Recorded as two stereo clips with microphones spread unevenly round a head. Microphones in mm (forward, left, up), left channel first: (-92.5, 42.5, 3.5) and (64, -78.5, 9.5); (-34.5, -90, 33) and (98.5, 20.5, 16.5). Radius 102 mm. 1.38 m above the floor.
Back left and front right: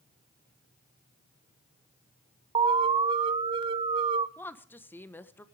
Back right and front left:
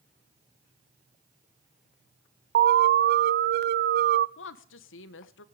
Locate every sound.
2.5 s an alarm: 30° left, 0.5 m
4.4 s a woman speaking: 140° right, 1.2 m